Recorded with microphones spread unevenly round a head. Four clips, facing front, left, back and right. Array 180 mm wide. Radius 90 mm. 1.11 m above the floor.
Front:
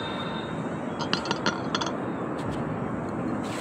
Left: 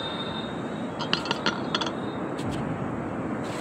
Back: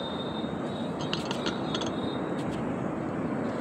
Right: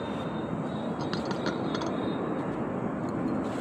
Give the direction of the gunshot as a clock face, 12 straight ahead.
10 o'clock.